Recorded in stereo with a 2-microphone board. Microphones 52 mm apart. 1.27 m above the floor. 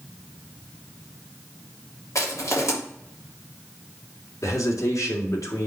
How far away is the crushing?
About 3.5 m.